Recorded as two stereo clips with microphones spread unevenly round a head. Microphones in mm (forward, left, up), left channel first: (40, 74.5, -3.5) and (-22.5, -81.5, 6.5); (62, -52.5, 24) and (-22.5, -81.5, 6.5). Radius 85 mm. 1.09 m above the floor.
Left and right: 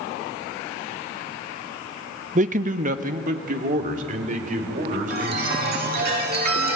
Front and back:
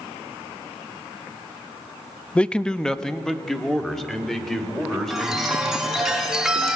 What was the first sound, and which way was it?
A man speaking, 65° right.